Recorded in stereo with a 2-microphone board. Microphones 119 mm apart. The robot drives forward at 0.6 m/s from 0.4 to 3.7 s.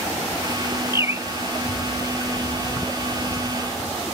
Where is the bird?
25° right (ahead or behind); by 1.3 s 20° right (ahead or behind).